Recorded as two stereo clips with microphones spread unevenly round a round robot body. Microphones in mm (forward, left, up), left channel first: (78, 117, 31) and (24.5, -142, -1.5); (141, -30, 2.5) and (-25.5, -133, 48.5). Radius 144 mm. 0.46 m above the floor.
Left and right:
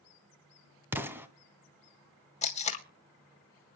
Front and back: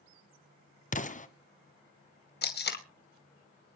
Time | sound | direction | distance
0.9 | an explosion | 20° right | 1.6 m
2.4 | tape being pulled | 10° left | 2.5 m